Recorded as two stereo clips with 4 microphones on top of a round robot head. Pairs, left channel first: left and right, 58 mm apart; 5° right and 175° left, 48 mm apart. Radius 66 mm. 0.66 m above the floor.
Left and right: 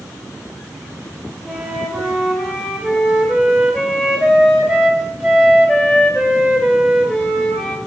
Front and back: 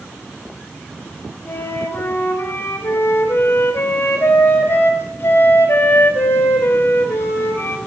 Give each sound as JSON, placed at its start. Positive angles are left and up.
{"t": 1.4, "sound": "a flute", "azimuth_deg": -15, "distance_m": 2.0}